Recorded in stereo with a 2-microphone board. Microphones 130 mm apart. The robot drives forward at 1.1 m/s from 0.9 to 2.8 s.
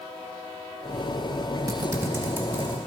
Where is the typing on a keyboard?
25° right (ahead or behind), 1.0 m; by 2.8 s 15° right (ahead or behind), 2 m.